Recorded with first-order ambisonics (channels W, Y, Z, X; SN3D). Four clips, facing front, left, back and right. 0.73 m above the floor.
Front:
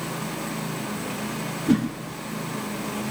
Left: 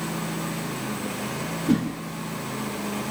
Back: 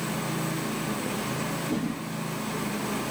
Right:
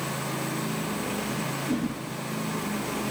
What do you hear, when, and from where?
1.7 s a whoosh: 35° left, 7 m